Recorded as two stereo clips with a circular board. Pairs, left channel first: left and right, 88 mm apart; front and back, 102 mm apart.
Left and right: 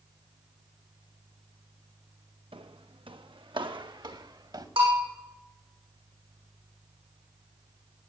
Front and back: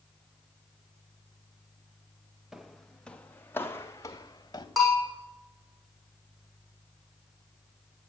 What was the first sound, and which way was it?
Footsteps, 95° right.